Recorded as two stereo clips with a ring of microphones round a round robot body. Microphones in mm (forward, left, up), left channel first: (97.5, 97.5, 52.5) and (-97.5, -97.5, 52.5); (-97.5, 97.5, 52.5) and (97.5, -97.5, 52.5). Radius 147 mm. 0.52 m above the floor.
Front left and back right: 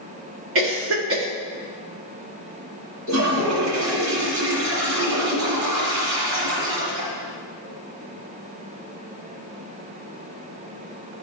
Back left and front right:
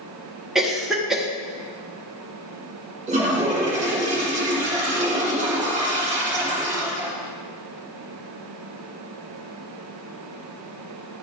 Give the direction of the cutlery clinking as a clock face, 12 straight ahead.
No cutlery clinking in this recording.